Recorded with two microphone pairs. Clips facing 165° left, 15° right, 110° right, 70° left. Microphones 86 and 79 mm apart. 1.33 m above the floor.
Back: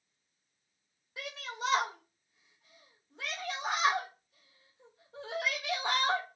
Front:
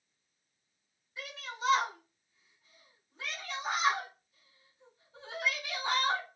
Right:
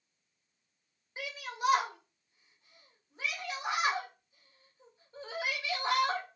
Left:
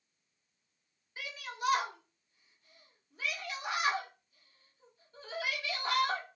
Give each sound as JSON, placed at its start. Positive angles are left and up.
{"t": 1.2, "sound": "a shout", "azimuth_deg": -175, "distance_m": 1.4}